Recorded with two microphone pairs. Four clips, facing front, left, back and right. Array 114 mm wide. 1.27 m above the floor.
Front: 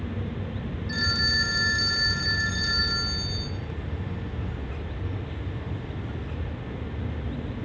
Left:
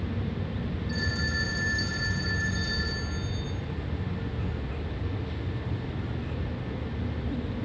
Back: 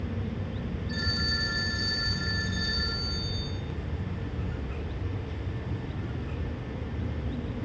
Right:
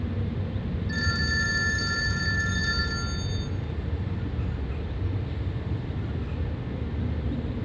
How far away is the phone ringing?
About 4 m.